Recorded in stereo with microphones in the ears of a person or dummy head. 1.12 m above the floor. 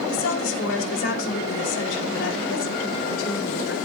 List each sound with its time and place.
0.1 s a woman speaking: 85° left, 4.5 m